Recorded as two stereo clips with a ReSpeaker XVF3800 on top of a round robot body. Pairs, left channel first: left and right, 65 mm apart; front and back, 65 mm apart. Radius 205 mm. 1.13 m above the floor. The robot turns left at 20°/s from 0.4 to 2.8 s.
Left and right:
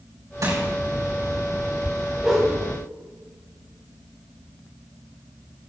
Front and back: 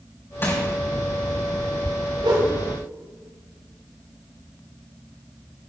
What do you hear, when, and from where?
0.4 s crushing: 55° right, 6 m
2.2 s a whoosh: 170° right, 1.6 m; by 2.5 s 175° right, 1.6 m